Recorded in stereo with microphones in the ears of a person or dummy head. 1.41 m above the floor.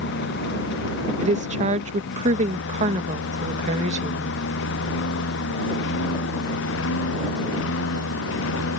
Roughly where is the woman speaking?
Right.